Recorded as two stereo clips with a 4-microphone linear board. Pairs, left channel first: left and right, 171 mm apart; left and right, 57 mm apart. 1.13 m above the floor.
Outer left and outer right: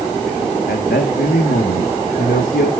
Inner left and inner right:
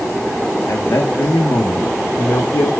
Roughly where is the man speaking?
Left.